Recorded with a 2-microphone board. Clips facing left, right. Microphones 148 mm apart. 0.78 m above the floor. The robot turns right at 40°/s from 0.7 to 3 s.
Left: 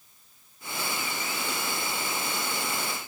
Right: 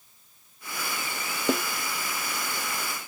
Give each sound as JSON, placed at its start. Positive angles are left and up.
{"t": 1.5, "sound": "a snare drum", "side_deg": -55}